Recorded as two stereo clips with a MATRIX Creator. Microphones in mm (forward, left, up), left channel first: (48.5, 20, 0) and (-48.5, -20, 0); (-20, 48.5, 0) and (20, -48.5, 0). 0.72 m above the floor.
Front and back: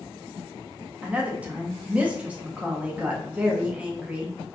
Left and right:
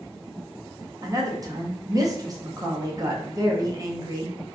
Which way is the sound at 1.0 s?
90° right.